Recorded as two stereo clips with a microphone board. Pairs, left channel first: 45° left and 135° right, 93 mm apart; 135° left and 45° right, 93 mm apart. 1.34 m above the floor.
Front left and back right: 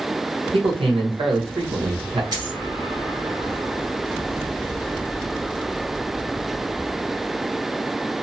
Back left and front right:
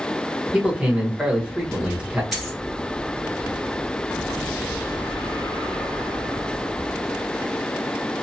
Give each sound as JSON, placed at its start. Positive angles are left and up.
{"t": 0.5, "sound": "a man speaking", "azimuth_deg": -120, "distance_m": 1.1}
{"t": 2.3, "sound": "a dropped coin", "azimuth_deg": -130, "distance_m": 1.7}